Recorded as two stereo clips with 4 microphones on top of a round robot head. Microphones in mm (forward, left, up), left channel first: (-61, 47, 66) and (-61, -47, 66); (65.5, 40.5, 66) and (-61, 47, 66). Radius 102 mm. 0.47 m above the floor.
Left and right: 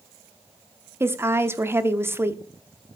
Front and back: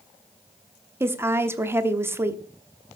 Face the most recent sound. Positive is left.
turn(degrees=-125)